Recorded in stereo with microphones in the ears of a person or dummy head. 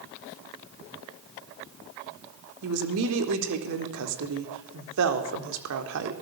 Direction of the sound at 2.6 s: 60° right (ahead or behind).